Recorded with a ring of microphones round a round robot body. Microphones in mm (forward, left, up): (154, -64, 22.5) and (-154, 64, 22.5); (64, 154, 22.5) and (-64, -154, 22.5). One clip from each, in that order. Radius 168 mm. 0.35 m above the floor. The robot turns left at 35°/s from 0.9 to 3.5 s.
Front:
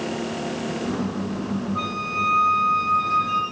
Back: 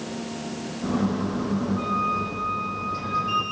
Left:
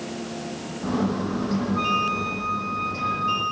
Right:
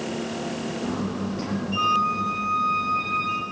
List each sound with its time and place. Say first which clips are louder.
1.8 s a flute: even, right 3 dB; 5° left, 5 m; by 3.4 s 55° right, 5 m